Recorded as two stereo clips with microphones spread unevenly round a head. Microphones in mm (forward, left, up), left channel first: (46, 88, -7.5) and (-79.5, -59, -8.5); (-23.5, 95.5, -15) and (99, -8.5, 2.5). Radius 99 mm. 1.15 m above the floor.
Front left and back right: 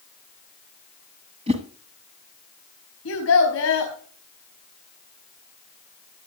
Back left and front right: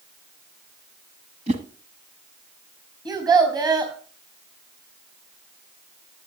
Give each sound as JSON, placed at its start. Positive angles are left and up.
{"t": 1.5, "sound": "a whoosh", "azimuth_deg": -75, "distance_m": 1.6}
{"t": 3.0, "sound": "a child speaking", "azimuth_deg": 25, "distance_m": 4.0}